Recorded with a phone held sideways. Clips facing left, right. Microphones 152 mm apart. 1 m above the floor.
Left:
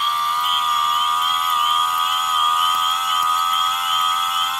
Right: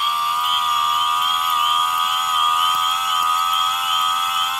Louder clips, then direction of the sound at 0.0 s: Even; 5° right (ahead or behind).